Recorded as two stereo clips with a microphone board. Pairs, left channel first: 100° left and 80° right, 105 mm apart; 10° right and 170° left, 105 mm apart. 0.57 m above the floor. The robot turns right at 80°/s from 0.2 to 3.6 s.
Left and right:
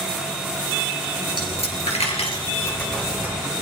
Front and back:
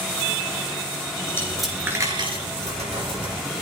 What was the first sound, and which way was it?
A dropped coin, 50° left.